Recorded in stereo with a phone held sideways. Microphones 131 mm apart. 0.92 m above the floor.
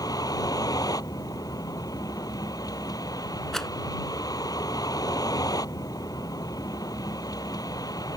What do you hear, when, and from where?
0.0 s a vehicle: 30° left (ahead or behind)
3.5 s a rattle: 5° left (ahead or behind)